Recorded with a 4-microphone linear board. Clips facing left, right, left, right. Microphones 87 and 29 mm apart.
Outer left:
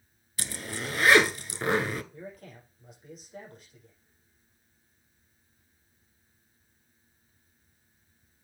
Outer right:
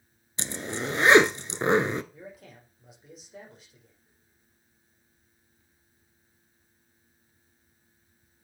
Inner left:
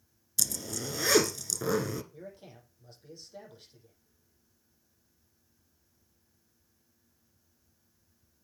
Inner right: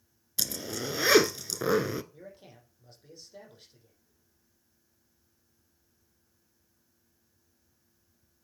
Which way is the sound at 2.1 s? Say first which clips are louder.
Outer left 2 dB, inner left 2 dB; centre (ahead or behind).